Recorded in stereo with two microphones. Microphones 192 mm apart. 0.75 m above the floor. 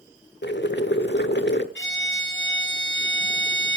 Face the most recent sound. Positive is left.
turn(degrees=80)